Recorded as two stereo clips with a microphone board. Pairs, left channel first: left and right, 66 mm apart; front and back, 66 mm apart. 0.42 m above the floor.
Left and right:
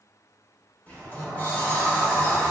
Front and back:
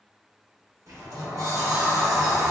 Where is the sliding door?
155° left, 1.0 m.